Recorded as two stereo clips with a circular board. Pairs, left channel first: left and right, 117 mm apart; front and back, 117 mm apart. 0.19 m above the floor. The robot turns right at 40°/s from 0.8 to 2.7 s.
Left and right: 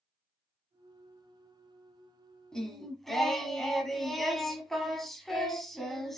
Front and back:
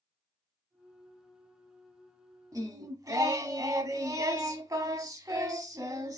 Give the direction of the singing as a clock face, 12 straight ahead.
6 o'clock.